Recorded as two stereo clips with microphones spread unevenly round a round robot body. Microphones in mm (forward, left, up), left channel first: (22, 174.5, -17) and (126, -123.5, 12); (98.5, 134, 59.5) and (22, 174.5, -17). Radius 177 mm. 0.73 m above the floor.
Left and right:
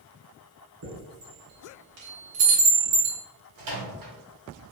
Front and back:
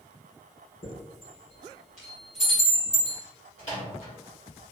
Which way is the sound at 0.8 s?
85° right.